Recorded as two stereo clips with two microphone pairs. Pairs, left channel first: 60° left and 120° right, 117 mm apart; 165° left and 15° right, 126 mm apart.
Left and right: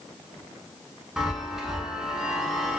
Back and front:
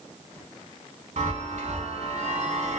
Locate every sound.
1.2 s a chime: 35° right, 0.7 m